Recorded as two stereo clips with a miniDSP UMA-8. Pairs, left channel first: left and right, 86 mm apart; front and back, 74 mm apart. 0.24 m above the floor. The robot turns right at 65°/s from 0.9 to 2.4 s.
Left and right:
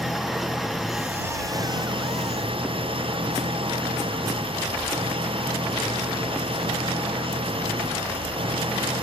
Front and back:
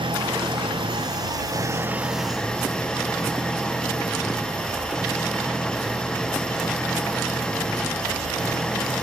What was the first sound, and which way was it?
An engine running, 175° right.